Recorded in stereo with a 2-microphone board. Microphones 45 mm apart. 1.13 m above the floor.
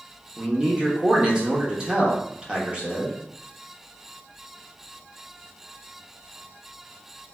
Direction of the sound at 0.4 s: 25° right (ahead or behind).